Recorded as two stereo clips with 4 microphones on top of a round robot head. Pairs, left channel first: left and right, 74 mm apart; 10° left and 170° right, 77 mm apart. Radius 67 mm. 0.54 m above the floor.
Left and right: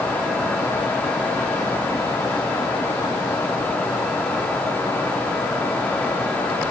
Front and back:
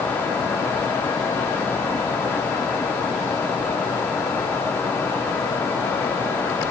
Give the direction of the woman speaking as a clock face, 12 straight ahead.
No woman speaking in this recording.